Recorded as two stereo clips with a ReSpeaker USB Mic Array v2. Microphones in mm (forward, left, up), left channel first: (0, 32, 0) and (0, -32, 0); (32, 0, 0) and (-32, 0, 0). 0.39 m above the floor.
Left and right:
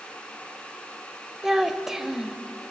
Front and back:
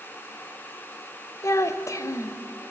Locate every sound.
1.4 s a child speaking: 10° right, 1.2 m